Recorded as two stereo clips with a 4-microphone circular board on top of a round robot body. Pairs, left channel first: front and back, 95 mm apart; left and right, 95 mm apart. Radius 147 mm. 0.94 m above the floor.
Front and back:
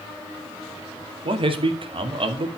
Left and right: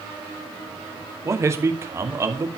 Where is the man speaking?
150° right, 2.5 m.